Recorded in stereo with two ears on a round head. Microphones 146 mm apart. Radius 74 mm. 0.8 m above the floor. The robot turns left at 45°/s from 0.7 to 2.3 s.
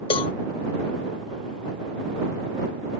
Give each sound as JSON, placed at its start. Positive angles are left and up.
{"t": 0.1, "sound": "a cowbell", "side_deg": 30}